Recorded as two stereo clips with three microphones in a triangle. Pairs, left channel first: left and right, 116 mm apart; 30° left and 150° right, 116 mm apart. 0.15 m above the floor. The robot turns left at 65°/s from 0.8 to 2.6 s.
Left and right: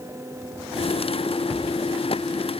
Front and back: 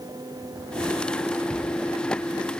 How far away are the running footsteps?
I don't hear running footsteps.